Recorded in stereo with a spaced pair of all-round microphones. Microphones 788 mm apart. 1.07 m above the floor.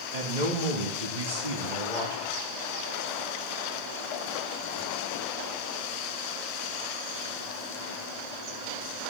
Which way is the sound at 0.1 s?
70° right (ahead or behind).